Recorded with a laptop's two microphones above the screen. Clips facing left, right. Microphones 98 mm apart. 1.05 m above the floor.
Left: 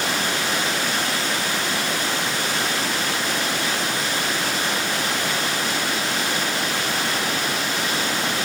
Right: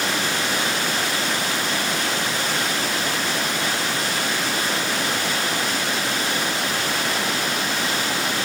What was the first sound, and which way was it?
Only background noise.